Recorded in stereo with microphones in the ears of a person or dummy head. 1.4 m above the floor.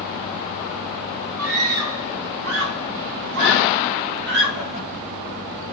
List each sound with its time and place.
1.4 s a scream: 80° right, 4.5 m; by 4.8 s 55° right (ahead or behind), 4.5 m